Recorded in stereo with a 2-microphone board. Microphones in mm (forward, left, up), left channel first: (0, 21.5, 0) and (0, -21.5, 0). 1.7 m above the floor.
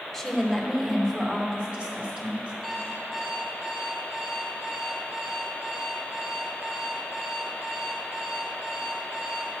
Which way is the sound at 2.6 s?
20° right (ahead or behind).